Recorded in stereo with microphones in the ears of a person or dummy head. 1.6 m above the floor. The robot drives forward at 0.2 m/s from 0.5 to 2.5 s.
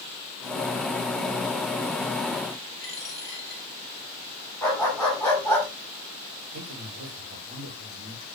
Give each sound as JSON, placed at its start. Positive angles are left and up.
{"t": 2.8, "sound": "a dropped coin", "side_deg": 15, "distance_m": 7.5}
{"t": 4.6, "sound": "a dog barking", "side_deg": 15, "distance_m": 7.5}
{"t": 6.5, "sound": "a man speaking", "side_deg": -40, "distance_m": 3.5}